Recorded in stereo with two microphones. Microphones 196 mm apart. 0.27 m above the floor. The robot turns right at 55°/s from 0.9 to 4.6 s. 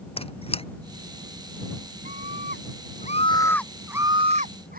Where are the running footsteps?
No running footsteps in this recording.